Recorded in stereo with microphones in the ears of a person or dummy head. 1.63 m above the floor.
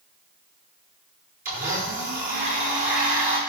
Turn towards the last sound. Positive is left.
turn(degrees=-45)  # may be behind; listen again after turning